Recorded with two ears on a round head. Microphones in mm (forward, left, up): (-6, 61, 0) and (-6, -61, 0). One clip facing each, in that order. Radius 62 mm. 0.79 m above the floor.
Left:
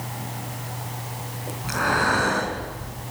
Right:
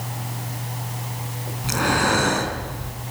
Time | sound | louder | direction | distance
1.6 | breathing | right 2 dB | 30° right (ahead or behind) | 6 m